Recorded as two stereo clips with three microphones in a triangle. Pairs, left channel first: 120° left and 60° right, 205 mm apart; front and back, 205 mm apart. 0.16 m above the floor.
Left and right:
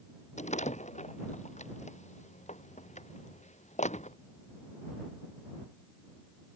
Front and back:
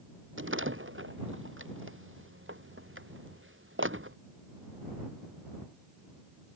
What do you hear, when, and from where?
0.4 s a door slam: 175° left